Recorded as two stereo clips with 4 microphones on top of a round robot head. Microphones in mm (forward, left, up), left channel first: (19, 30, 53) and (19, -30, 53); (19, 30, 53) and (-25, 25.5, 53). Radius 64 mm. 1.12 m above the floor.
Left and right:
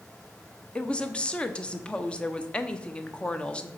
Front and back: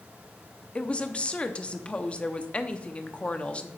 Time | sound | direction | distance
0.8 | a woman speaking | 40° left | 0.7 m